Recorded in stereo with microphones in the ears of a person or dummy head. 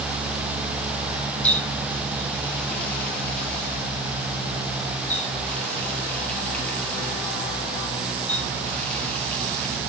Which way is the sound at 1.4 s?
10° left (ahead or behind).